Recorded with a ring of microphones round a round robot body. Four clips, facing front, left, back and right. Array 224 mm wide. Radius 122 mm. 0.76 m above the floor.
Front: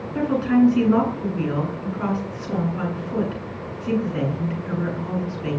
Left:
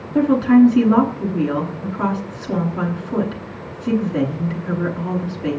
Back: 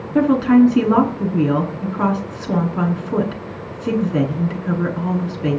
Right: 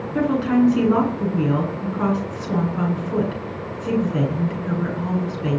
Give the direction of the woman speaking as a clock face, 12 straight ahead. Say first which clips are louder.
Left 6 dB, back 6 dB; 6 o'clock.